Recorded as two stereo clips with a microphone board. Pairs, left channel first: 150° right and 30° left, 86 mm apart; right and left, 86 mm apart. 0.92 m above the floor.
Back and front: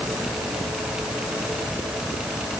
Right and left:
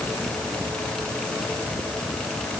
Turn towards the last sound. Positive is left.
No sound to turn to.